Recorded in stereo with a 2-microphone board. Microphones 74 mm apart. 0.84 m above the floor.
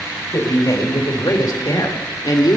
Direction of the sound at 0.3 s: 50° left (ahead or behind).